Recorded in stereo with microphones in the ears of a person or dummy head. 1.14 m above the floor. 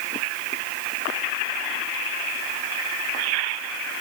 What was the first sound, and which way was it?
Only background noise.